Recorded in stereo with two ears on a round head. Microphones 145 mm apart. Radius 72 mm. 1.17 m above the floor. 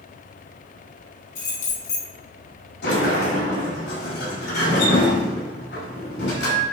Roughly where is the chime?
I don't hear a chime.